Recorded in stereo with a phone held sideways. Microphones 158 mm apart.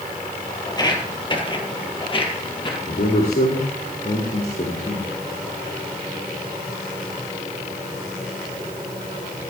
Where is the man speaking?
80° left, 2.5 m.